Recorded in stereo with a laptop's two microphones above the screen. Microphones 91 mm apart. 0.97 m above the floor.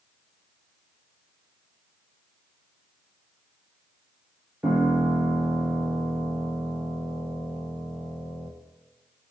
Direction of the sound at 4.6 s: 25° right (ahead or behind).